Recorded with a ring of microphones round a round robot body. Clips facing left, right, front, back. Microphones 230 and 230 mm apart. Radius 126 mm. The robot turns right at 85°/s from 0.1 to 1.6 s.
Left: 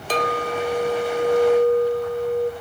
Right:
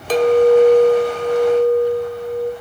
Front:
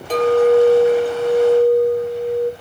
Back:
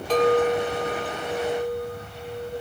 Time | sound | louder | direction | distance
0.1 | a clink | right 14 dB, front 7 dB | 85° right | 0.6 m